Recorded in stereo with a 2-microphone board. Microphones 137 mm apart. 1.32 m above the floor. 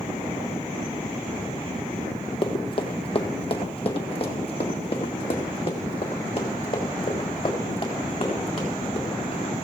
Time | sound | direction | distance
2.4 | running footsteps | 35° left (ahead or behind) | 1.6 m